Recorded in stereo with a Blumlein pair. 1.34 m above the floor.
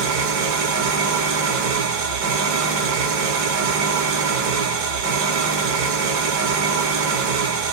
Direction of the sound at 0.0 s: 45° right.